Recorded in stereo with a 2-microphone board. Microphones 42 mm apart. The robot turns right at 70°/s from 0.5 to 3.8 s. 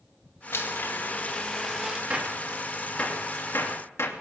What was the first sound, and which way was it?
A blender, 90° left.